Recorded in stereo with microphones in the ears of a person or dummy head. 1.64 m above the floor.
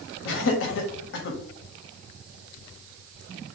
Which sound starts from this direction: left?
Laughter, at 0.2 s.